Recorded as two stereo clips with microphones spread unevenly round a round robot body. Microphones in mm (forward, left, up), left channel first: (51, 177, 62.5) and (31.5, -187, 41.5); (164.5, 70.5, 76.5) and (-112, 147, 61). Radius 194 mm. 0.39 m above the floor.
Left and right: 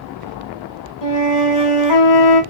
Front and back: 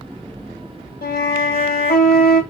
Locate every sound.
1.0 s a flute: 45° left, 1.3 m